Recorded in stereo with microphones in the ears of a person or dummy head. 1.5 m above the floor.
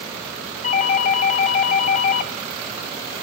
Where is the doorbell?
40° left (ahead or behind), 0.5 m.